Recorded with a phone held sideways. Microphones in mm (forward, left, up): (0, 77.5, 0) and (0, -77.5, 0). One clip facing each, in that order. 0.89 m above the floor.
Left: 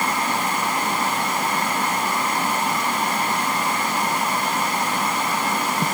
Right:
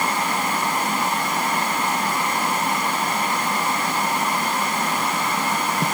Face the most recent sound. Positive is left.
No sound to turn to.